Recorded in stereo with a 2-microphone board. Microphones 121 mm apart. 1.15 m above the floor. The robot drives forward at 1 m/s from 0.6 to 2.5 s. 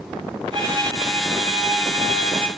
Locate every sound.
0.5 s a violin: 35° right (ahead or behind), 4.5 m; by 2.5 s 55° right (ahead or behind), 3 m